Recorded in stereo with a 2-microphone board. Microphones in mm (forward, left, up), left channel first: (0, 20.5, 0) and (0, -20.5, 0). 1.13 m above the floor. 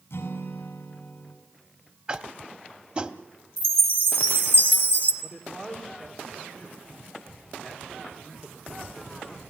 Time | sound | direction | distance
0.1 | a guitar | 70° left (ahead or behind) | 5 m
2.1 | tapping | 25° right (ahead or behind) | 1.0 m
3.6 | a chime | 60° right (ahead or behind) | 2.5 m
5.2 | a man speaking | 15° right (ahead or behind) | 3 m